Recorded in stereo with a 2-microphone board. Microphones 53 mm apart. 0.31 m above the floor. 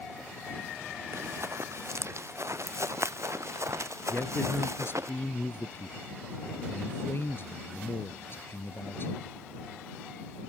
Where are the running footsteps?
60° right (ahead or behind); by 5.1 s 65° right (ahead or behind).